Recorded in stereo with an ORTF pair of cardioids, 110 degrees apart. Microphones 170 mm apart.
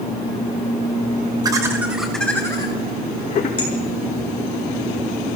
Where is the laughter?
25° right, 1.2 m; by 3.5 s 45° left, 1.5 m.